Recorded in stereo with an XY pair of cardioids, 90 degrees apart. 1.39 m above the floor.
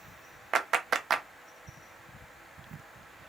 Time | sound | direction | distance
0.5 | a clap | 55° right | 0.6 m